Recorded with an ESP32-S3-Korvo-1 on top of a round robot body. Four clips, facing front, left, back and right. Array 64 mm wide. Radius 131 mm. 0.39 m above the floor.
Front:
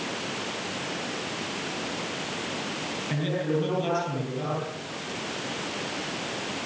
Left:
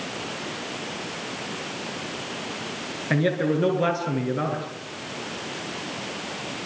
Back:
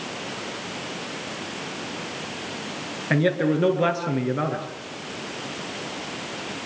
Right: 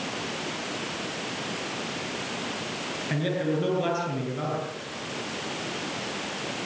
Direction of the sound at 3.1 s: 155° left.